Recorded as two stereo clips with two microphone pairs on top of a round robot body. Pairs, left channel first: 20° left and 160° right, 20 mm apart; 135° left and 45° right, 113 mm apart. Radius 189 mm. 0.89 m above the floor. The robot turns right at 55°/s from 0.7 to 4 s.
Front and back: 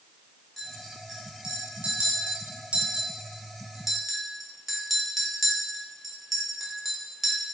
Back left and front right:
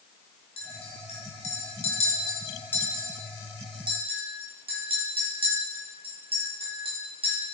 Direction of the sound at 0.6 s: 95° left.